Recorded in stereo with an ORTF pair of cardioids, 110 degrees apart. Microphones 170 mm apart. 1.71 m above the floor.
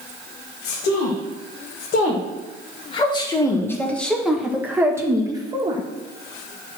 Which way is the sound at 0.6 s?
70° left.